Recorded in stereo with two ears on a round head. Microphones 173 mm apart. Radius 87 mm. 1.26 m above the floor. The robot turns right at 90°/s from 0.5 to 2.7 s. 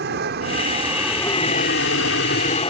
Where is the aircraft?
55° right (ahead or behind); by 2.7 s 25° left (ahead or behind).